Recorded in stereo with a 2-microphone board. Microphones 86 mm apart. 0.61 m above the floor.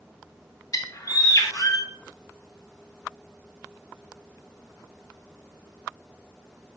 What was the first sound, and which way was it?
A bird, 45° left (ahead or behind).